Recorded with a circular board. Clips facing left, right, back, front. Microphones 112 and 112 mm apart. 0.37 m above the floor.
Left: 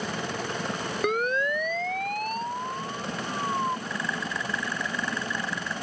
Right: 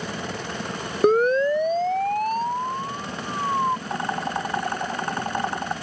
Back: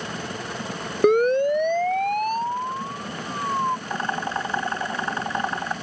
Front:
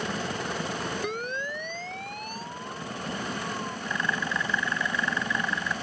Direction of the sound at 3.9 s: 130° right.